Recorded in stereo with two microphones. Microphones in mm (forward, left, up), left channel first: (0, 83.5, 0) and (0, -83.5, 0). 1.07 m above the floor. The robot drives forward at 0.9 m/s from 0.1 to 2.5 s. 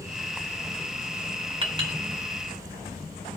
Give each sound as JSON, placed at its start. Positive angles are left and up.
{"t": 1.6, "sound": "a clink", "side_deg": -30, "distance_m": 3.0}